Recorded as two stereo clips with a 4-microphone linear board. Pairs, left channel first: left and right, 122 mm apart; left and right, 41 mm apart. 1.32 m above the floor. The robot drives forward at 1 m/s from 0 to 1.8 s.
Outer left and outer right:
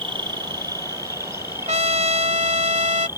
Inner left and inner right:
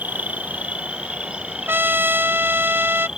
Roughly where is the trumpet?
Right.